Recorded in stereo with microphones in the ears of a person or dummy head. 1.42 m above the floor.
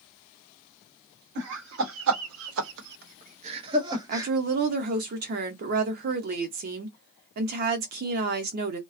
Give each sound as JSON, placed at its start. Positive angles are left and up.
{"t": 1.4, "sound": "laughter", "side_deg": -55, "distance_m": 1.1}
{"t": 4.1, "sound": "a woman speaking", "side_deg": -50, "distance_m": 0.7}